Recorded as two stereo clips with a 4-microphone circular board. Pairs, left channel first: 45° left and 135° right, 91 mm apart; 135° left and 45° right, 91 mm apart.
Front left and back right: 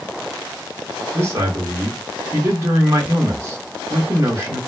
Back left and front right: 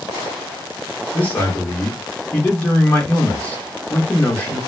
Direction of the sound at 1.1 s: 170° right.